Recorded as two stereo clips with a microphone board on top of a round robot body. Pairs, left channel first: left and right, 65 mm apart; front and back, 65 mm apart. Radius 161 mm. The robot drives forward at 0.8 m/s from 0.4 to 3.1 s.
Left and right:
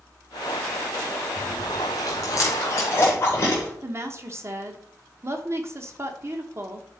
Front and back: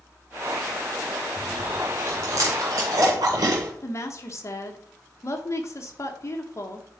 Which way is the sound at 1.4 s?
100° left.